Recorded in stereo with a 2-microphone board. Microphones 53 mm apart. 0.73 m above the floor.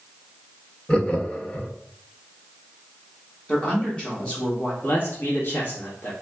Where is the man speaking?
40° left (ahead or behind), 1.1 m.